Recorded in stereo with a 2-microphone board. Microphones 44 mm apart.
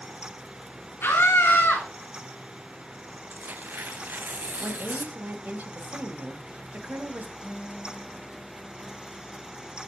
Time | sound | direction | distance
1.0 | a scream | 70° left (ahead or behind) | 3 m
3.3 | tearing paper | 45° right (ahead or behind) | 0.6 m
4.6 | a woman speaking | 45° right (ahead or behind) | 1.3 m
7.4 | a guitar | 60° right (ahead or behind) | 6 m